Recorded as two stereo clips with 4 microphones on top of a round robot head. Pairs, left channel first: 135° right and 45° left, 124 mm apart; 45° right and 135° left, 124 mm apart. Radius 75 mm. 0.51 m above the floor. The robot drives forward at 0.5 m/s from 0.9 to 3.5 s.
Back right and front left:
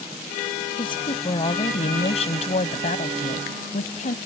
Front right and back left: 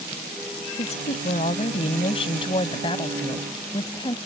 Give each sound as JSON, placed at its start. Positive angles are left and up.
{"t": 0.8, "sound": "a woman speaking", "azimuth_deg": -85}